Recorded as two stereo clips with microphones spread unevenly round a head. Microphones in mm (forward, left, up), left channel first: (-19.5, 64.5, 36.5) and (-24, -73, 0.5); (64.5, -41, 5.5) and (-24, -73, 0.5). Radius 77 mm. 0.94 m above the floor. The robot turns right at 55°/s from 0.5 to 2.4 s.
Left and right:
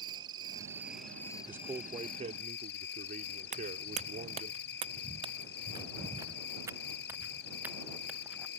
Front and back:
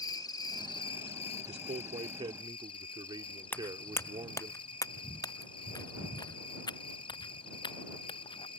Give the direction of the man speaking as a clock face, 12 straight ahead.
6 o'clock.